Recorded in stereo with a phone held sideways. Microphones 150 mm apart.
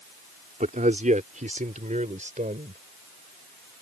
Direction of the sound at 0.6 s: 55° right (ahead or behind).